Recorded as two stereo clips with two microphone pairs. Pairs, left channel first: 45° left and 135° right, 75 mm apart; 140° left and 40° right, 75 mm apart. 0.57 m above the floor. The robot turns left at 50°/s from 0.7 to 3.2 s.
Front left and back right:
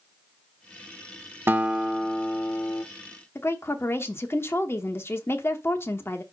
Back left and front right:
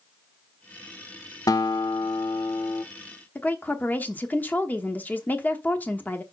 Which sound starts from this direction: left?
A woman speaking, at 3.4 s.